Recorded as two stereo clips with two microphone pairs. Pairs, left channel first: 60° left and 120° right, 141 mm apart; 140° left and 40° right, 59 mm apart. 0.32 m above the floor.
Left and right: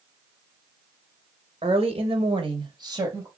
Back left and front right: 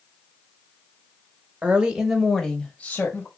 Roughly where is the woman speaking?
Right.